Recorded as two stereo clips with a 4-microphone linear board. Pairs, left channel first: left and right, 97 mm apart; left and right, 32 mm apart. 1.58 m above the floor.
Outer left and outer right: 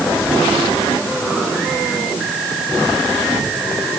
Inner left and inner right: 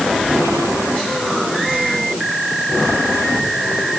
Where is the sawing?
I don't hear sawing.